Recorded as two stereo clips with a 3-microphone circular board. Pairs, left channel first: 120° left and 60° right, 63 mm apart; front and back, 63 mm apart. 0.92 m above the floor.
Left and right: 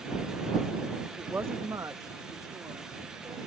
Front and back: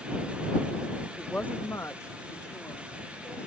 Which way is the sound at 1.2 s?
75° right.